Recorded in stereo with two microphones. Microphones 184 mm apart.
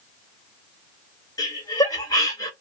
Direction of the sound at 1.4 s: 20° left (ahead or behind).